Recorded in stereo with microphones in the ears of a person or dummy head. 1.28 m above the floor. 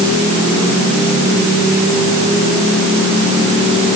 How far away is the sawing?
No sawing in this recording.